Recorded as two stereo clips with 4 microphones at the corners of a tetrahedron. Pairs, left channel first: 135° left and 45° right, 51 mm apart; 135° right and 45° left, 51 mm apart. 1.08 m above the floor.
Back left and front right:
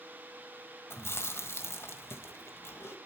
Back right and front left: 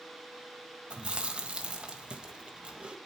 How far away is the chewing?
About 1.6 m.